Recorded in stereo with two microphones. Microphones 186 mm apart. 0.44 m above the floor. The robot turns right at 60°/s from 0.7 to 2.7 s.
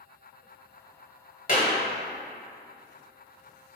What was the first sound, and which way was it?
A clap, 50° left (ahead or behind).